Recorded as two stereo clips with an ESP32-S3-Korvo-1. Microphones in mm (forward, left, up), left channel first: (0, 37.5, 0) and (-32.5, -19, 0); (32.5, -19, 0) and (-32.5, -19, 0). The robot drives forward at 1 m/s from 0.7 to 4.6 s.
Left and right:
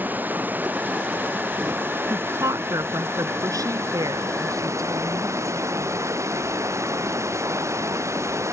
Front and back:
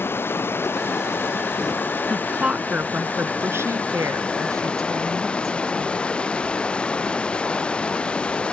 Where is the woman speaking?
95° right; by 6.0 s 150° right.